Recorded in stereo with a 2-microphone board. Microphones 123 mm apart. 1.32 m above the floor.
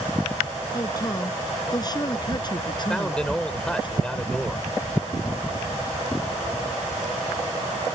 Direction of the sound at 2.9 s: 5° left (ahead or behind).